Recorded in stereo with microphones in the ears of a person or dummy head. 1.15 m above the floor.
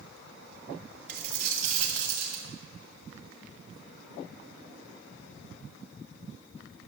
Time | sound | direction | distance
1.1 | a dropped coin | 50° right (ahead or behind) | 2.5 m